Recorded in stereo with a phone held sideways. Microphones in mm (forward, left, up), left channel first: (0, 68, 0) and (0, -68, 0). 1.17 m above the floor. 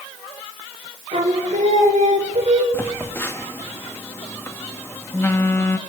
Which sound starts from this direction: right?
Singing, at 1.1 s.